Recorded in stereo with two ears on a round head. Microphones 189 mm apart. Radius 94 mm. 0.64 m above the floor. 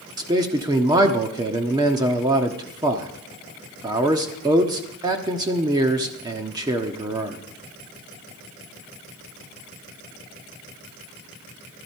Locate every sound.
0.2 s a man speaking: 20° right (ahead or behind), 1.2 m